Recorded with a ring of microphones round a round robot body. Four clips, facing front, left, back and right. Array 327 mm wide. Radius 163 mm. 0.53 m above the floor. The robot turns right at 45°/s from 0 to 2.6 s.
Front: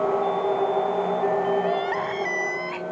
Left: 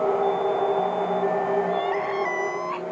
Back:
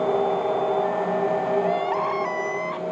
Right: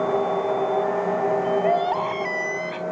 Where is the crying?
80° right; by 2.8 s 40° right.